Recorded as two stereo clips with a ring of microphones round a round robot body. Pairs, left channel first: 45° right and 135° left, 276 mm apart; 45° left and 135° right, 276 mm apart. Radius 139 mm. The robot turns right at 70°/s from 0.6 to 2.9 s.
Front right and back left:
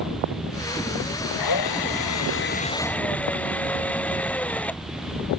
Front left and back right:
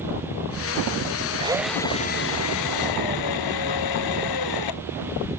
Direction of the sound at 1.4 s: 65° right.